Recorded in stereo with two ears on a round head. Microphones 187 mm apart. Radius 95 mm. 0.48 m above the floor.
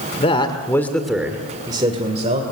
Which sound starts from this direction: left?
A man speaking, at 0.2 s.